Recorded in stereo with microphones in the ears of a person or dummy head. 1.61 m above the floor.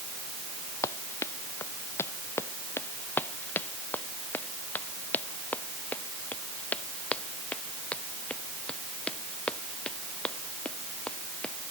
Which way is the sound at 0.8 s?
15° left (ahead or behind).